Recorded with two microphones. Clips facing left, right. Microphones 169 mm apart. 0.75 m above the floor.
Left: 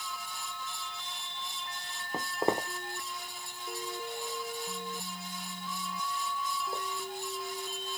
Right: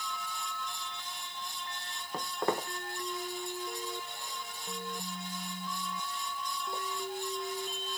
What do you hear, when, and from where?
2.1 s footsteps: 20° left (ahead or behind), 1.2 m; by 6.8 s 40° left (ahead or behind), 4.5 m